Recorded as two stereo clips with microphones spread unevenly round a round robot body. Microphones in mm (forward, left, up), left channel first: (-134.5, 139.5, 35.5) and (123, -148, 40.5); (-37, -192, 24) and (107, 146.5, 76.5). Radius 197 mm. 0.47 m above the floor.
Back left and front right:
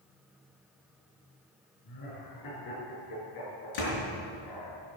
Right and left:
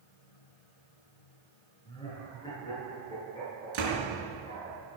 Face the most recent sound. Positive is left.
turn(degrees=95)